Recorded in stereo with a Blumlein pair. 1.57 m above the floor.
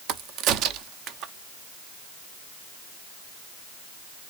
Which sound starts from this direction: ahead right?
A crack, at 0.1 s.